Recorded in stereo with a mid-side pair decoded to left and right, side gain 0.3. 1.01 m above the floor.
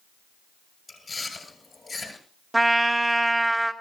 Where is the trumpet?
20° right, 1.8 m.